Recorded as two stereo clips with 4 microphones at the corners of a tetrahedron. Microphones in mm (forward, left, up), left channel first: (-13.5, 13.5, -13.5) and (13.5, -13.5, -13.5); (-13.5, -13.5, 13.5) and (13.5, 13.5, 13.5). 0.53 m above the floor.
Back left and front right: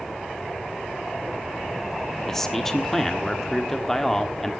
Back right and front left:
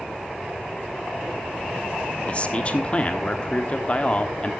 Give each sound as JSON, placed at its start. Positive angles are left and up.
{"t": 2.3, "sound": "a man speaking", "azimuth_deg": -150, "distance_m": 1.2}